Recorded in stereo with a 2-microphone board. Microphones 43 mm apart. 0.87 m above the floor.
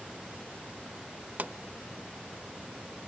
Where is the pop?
40° right (ahead or behind), 0.6 m.